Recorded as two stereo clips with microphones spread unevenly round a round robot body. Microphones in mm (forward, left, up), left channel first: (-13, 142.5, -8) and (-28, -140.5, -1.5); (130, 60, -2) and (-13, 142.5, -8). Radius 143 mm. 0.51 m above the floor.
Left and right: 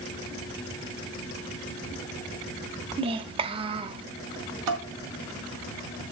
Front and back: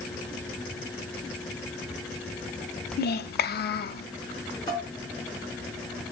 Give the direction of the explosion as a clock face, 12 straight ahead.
I don't hear an explosion.